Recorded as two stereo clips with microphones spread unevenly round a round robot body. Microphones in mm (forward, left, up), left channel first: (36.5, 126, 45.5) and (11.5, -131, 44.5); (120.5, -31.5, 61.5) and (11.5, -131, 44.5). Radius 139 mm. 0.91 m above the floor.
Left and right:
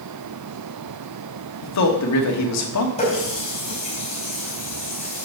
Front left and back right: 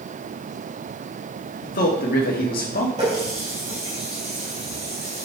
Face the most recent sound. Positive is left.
turn(degrees=150)